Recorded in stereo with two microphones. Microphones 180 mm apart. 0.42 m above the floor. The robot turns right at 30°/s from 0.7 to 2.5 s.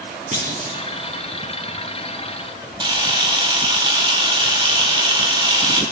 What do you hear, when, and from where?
0.3 s a clunk: 45° right (ahead or behind), 3.5 m; by 0.8 s 50° right (ahead or behind), 3.5 m
2.8 s a camera shutter: 25° right (ahead or behind), 1.6 m